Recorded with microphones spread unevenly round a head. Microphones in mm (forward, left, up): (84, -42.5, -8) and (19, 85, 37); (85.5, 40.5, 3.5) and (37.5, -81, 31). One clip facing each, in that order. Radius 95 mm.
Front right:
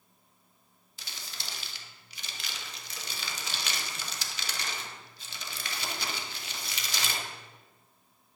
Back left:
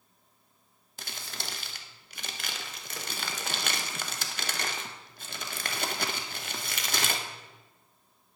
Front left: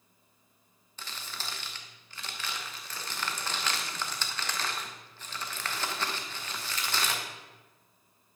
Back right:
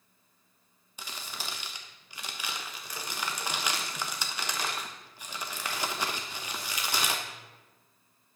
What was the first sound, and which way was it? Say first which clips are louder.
Crumpling: back left 5 dB, back right 1 dB; 160° left.